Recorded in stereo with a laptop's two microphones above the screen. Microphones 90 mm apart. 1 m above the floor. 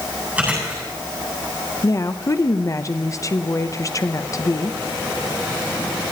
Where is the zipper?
No zipper in this recording.